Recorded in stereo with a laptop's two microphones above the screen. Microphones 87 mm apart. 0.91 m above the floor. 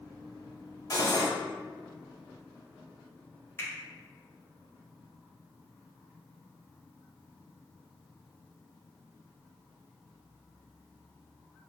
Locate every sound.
0.9 s cutlery clinking: 40° left (ahead or behind), 1.0 m
3.6 s a finger snap: 30° left (ahead or behind), 0.8 m